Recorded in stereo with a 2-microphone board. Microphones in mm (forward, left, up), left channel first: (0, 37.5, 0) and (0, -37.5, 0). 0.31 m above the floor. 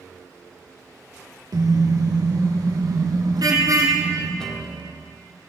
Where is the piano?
10° left (ahead or behind), 1.7 m.